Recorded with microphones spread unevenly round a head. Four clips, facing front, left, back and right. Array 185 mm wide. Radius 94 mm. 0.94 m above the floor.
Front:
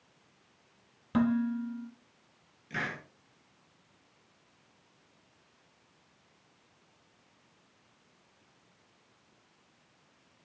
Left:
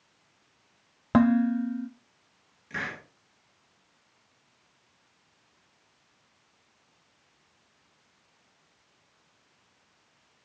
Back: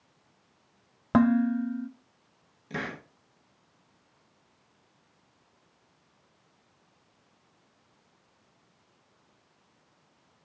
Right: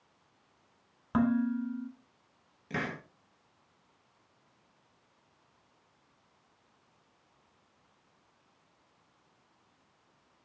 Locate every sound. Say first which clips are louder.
1.1 s dishes clattering: left 7 dB, back 6 dB; 130° left, 0.7 m
2.7 s a hiss: even, back 2 dB; 140° right, 1.6 m